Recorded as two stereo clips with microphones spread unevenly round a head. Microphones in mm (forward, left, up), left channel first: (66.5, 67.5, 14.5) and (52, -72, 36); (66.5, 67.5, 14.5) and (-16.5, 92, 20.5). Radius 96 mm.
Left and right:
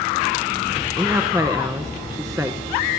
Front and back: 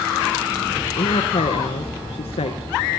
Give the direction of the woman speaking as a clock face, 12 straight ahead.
1 o'clock.